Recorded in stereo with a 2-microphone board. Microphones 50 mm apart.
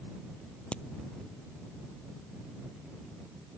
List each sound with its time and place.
0.7 s a crack: 20° left (ahead or behind)